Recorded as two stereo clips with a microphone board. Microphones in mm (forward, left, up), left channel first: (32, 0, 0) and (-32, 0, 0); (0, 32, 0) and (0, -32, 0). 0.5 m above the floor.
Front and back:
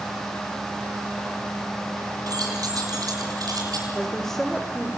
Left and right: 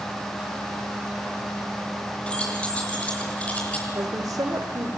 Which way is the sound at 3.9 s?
85° right.